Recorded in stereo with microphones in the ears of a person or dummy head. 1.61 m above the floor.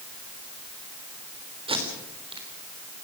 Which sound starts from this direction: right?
Tape being pulled, at 1.7 s.